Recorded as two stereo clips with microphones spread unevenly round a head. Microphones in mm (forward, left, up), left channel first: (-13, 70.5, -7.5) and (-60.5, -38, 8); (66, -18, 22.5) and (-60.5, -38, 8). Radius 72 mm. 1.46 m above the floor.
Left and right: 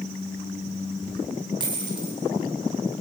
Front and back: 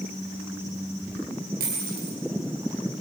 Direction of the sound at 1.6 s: 160° right.